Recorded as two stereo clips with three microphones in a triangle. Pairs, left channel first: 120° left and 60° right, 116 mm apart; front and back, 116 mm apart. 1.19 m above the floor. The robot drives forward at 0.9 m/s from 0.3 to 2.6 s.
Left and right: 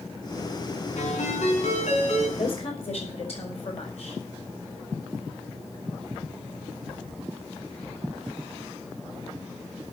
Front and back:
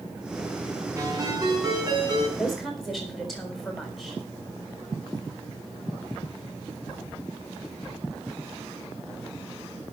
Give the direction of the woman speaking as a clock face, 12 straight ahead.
9 o'clock.